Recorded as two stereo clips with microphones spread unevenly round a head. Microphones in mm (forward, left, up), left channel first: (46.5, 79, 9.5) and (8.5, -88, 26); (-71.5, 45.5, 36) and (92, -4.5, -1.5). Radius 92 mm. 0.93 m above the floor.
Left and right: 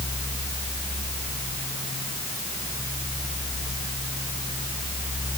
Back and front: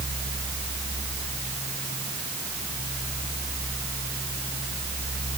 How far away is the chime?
No chime in this recording.